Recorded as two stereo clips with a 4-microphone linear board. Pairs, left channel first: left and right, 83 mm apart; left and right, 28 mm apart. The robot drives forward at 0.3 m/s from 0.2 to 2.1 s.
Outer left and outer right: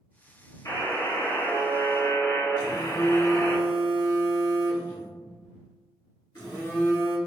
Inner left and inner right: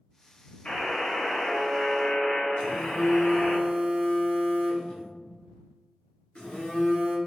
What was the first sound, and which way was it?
A buzzer, 40° left (ahead or behind).